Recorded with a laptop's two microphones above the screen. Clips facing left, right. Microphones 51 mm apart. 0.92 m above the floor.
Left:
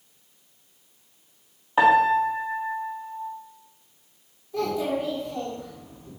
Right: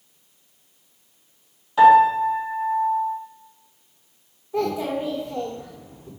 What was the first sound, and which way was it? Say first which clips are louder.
A piano: right 5 dB; 30° left (ahead or behind).